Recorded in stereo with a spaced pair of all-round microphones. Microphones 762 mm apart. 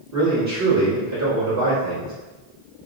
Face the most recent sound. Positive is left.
turn(degrees=-20)  # may be behind; listen again after turning